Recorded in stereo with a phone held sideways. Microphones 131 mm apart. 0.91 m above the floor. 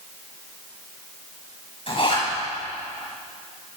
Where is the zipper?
45° left (ahead or behind), 7.5 m.